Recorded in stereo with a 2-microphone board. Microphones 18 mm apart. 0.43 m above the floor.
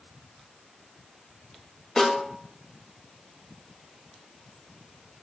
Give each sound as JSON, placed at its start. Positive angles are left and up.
{"t": 2.0, "sound": "a snare drum", "side_deg": 25, "distance_m": 1.1}